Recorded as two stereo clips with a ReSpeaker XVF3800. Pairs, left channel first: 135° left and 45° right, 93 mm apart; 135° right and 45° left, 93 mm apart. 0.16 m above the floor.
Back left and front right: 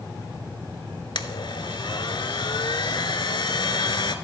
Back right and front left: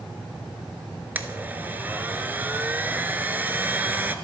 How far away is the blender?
About 0.6 m.